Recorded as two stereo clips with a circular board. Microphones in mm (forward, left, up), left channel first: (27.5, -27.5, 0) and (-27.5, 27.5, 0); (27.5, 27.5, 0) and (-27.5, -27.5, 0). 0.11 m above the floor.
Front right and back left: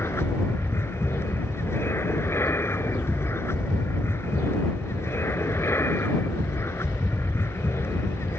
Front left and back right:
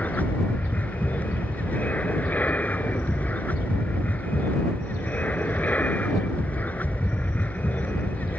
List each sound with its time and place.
0.0 s an aircraft: 15° right